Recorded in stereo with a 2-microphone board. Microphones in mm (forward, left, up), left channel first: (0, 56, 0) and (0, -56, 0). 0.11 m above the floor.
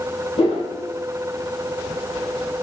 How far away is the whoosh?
About 4 m.